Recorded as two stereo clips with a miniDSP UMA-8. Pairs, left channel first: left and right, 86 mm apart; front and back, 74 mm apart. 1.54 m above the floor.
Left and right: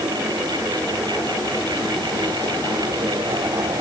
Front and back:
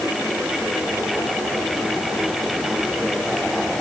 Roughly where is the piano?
No piano in this recording.